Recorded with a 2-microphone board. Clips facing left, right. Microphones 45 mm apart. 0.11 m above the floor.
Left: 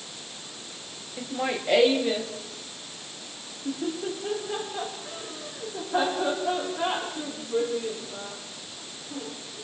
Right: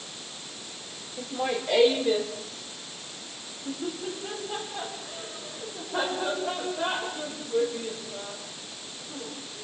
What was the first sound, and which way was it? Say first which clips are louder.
Laughter: even; 55° left (ahead or behind).